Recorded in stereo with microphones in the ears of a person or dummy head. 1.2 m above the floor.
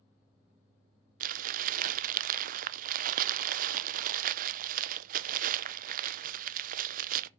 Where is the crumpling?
45° right (ahead or behind), 0.5 m.